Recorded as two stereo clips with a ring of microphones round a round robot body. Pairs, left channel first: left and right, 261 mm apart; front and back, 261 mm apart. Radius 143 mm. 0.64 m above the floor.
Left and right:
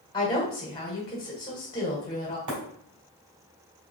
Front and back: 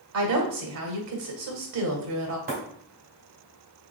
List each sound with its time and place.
0.1 s a woman speaking: 165° left, 2.0 m
2.5 s breaking glass: 120° right, 3 m